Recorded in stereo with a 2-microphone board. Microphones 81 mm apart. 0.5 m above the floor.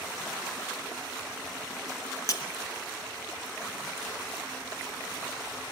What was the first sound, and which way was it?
Breaking glass, 45° left (ahead or behind).